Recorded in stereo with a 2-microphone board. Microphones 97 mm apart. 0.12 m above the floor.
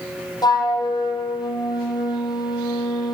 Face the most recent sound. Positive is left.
turn(degrees=40)  # may be behind; listen again after turning